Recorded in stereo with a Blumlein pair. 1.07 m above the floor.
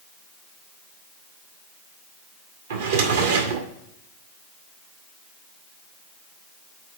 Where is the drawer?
60° right, 1.1 m.